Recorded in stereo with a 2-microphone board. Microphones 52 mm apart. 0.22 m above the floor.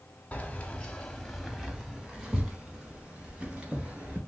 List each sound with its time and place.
0.3 s keys jangling: 30° left (ahead or behind), 0.9 m; by 4.2 s 30° right (ahead or behind), 2 m